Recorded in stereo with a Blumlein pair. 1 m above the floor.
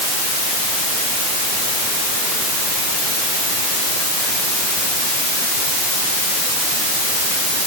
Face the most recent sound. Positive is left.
No sound to turn to.